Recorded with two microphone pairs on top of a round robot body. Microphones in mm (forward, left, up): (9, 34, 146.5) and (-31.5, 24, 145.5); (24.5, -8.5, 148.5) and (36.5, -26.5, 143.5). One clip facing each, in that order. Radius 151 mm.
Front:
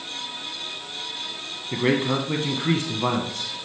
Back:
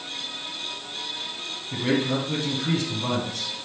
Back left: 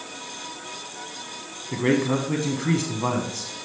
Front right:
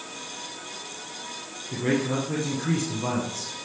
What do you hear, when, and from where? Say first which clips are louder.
1.7 s a man speaking: front 2 dB, back left 3 dB; 55° left, 1.2 m